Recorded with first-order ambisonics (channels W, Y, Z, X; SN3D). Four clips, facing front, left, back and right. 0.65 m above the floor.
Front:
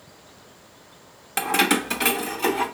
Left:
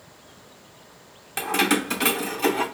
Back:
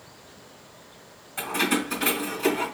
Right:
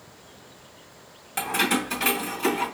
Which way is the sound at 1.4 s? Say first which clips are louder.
Left 2 dB, front 4 dB; 10° left.